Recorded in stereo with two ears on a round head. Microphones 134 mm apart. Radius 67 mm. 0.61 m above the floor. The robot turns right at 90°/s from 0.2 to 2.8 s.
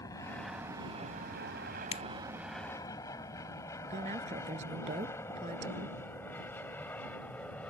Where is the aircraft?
25° left (ahead or behind); by 7.7 s 10° left (ahead or behind).